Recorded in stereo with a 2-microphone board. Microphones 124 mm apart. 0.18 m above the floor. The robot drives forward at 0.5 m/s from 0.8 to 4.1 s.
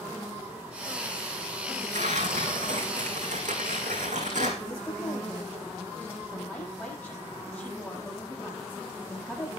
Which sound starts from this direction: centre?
A woman speaking, at 4.6 s.